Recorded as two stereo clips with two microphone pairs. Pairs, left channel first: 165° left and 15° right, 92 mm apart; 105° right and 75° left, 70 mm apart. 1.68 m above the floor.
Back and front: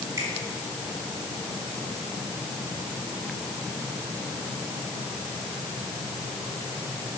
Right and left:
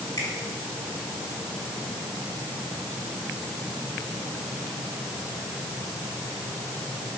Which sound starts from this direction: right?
A finger snap, at 0.2 s.